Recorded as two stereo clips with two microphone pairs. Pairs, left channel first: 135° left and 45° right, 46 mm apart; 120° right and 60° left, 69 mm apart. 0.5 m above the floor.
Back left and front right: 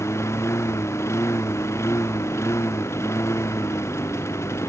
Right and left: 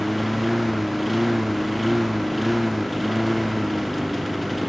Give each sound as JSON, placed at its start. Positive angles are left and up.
{"t": 0.0, "sound": "a lawn mower", "azimuth_deg": 155}